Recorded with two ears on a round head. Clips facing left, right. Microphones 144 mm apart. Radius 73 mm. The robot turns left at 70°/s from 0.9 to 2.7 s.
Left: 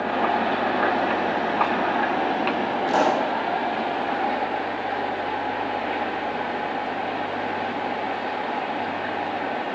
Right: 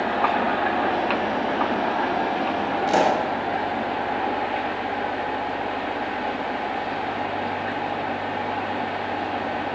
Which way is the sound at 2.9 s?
25° right (ahead or behind).